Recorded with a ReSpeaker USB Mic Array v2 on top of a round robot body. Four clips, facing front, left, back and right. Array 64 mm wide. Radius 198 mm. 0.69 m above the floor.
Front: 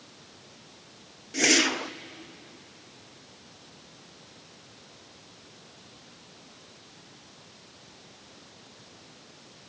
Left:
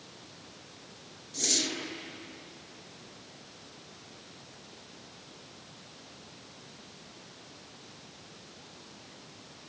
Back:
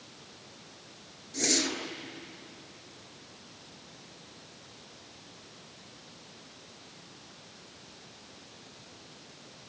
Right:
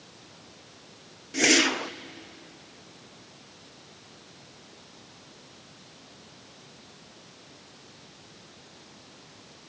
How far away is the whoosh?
About 0.8 m.